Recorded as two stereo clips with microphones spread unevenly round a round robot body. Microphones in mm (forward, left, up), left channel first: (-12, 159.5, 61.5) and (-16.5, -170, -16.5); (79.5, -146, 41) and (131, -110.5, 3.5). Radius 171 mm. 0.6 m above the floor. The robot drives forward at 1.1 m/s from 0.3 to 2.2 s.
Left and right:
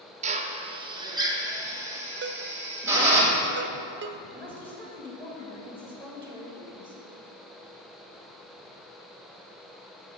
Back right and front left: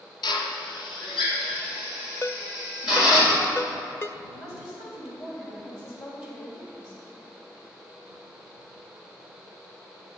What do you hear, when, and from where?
0.2 s a drill: 135° right, 1.0 m; by 3.2 s 170° right, 2.5 m
2.2 s a ringtone: 70° right, 0.7 m
4.3 s a woman speaking: straight behind, 3.5 m